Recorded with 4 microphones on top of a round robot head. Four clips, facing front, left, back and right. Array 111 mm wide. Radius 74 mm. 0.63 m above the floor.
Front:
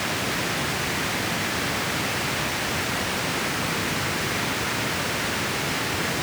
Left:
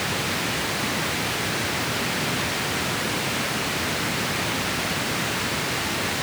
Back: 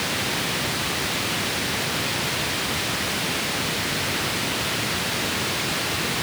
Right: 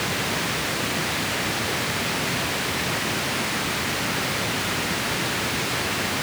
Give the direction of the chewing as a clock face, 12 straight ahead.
No chewing in this recording.